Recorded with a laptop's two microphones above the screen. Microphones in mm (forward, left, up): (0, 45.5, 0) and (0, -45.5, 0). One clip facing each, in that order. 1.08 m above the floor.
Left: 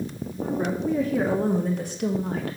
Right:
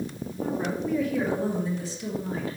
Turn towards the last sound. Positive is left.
turn(degrees=70)  # may be behind; listen again after turning